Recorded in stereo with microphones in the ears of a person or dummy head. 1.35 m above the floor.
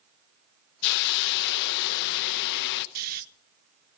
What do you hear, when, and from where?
0.8 s a hiss: 60° left (ahead or behind), 0.7 m
3.0 s snoring: 55° right (ahead or behind), 0.7 m